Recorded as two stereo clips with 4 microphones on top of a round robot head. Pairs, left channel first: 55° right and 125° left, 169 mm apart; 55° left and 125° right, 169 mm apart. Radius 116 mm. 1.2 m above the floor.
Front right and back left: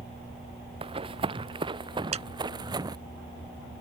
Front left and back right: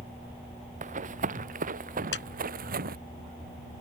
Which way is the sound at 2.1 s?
70° left.